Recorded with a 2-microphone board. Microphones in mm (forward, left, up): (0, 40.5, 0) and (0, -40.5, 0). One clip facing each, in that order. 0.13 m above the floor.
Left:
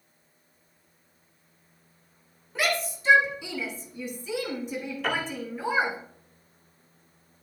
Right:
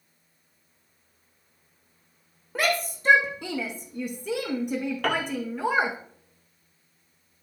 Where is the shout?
45° right (ahead or behind), 6.5 m; by 6.0 s 65° right (ahead or behind), 7 m.